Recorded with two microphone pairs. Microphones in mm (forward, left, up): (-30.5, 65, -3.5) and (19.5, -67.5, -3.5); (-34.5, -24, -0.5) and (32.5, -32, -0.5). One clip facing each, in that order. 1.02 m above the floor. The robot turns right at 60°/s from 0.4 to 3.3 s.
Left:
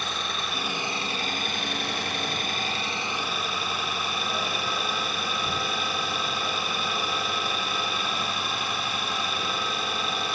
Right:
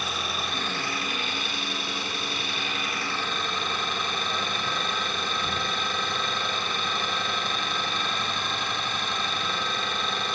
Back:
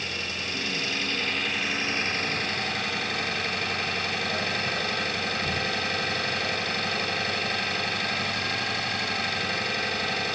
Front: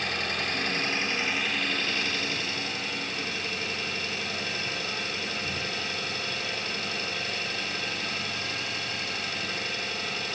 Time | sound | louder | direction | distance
0.0 | an engine running | right 1 dB, front 3 dB | 15° left | 1.5 m